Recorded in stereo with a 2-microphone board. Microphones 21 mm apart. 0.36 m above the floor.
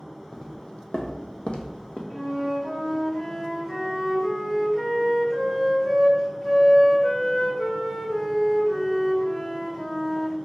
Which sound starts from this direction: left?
Footsteps, at 0.3 s.